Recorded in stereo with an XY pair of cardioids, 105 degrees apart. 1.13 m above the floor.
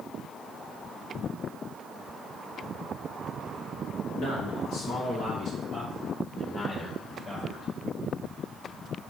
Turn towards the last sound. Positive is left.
turn(degrees=40)